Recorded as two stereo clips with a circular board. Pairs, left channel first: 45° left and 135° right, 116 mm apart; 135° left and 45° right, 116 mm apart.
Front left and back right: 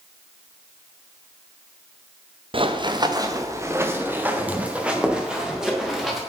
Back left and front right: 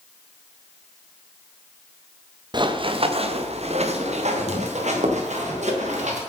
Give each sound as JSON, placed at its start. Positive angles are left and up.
{"t": 2.5, "sound": "running footsteps", "azimuth_deg": -95, "distance_m": 1.7}